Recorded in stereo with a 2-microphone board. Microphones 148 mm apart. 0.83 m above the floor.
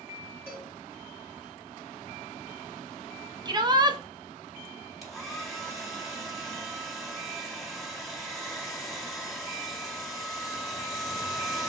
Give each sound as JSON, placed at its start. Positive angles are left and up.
{"t": 0.5, "sound": "a cowbell", "side_deg": -15, "distance_m": 3.0}
{"t": 3.5, "sound": "a shout", "side_deg": -30, "distance_m": 0.8}
{"t": 5.0, "sound": "a hair dryer", "side_deg": 0, "distance_m": 1.4}